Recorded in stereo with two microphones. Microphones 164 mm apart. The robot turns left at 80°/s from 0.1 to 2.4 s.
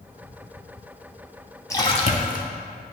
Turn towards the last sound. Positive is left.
turn(degrees=100)